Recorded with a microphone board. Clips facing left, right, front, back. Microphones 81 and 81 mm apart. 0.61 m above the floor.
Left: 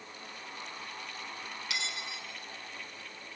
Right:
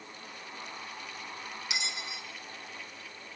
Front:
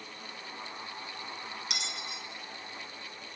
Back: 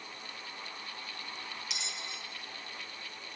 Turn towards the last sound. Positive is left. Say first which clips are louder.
# right 1 dB, front 3 dB
turn(degrees=-20)